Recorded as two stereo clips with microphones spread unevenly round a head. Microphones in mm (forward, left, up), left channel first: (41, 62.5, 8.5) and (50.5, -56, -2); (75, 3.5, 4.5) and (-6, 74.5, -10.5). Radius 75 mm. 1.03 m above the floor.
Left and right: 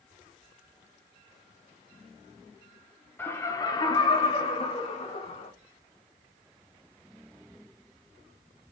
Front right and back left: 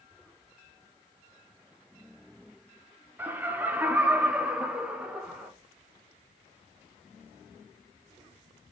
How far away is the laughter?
About 0.8 m.